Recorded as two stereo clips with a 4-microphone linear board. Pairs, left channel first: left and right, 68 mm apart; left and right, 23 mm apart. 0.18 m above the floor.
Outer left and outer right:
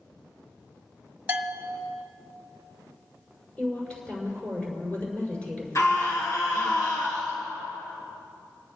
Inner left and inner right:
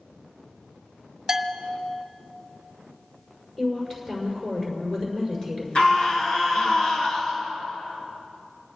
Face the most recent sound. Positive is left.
turn(degrees=50)  # may be behind; listen again after turning